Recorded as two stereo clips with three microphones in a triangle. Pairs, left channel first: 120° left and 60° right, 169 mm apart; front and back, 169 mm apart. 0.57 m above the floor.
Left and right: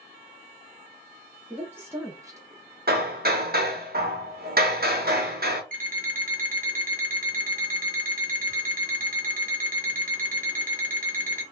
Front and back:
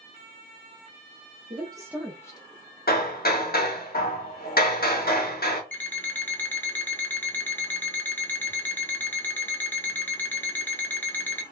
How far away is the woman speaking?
About 0.8 m.